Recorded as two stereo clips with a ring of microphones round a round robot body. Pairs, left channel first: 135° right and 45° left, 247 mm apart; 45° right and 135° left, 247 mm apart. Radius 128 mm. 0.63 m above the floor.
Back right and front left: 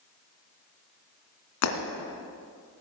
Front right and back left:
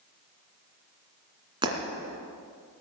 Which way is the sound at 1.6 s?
155° right.